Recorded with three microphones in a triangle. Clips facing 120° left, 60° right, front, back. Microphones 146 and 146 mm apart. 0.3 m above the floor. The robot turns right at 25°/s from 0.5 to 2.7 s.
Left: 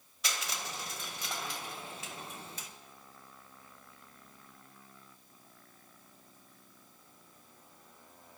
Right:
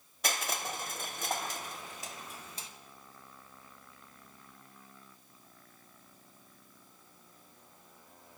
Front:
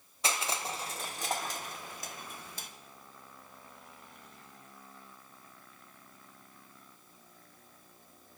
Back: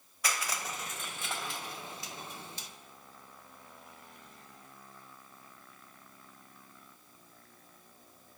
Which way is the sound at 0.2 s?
60° right.